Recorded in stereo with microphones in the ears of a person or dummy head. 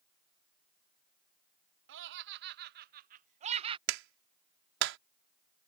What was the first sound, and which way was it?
Laughter, 70° right (ahead or behind).